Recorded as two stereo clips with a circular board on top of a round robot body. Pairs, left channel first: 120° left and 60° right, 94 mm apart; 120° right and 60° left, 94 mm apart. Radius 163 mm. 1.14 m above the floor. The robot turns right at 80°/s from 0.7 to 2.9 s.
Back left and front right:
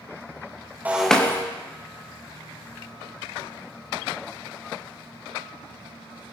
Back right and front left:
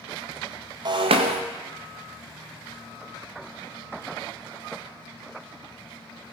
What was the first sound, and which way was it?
Breaking glass, 15° left.